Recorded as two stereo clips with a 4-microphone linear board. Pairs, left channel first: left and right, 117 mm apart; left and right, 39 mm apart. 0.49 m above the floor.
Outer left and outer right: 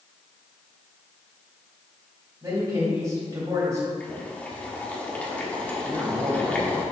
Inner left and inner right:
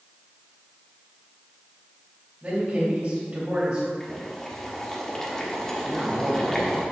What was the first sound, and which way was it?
A man speaking, 35° right (ahead or behind).